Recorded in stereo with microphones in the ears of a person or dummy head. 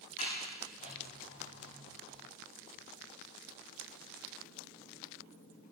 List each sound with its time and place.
0.2 s a sliding door: 50° left (ahead or behind), 9 m